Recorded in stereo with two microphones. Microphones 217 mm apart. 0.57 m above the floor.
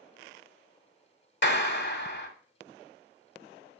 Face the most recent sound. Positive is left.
turn(degrees=55)  # may be behind; listen again after turning